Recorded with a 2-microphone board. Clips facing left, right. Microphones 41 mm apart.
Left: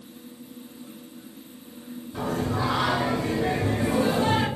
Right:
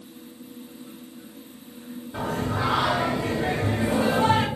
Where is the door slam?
No door slam in this recording.